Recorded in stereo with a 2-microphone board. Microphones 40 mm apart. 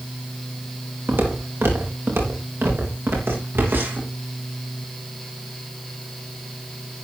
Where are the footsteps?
85° right, 5.5 m; by 4.1 s 70° right (ahead or behind), 7.5 m.